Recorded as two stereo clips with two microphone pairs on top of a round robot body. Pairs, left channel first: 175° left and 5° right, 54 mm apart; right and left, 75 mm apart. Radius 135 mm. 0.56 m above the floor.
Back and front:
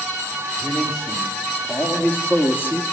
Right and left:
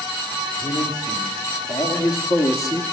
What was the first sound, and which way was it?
A man speaking, 105° right.